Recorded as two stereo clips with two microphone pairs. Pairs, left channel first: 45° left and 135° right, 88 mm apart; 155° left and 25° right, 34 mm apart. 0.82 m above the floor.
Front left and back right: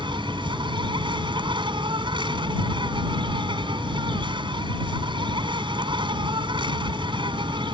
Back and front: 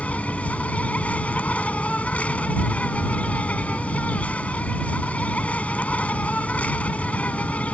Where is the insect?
155° right.